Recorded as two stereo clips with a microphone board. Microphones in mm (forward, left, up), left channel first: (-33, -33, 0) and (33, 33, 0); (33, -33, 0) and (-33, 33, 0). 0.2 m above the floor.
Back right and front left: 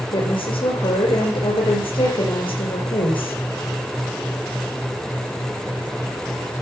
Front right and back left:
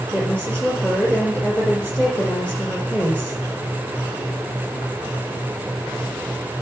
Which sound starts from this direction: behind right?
A woman speaking, at 0.1 s.